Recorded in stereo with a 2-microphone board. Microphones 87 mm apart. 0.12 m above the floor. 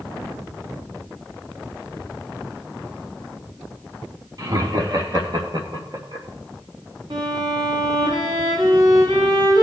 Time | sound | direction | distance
4.4 | laughter | 50° right (ahead or behind) | 3 m
7.1 | a violin | 65° right (ahead or behind) | 5.5 m